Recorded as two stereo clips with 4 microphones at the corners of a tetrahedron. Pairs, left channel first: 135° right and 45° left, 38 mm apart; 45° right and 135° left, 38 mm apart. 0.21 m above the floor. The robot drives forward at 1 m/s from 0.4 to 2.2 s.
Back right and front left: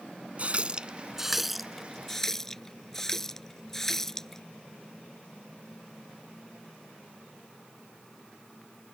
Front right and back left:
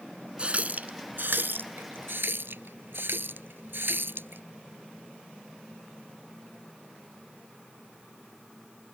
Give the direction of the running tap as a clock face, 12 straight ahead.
9 o'clock.